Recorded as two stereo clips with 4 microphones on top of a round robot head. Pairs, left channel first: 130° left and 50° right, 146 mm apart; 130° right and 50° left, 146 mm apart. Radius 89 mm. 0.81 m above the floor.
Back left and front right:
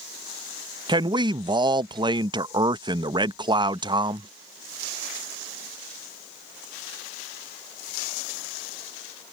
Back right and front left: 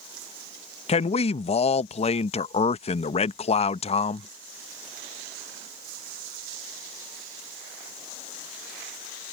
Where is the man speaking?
100° right.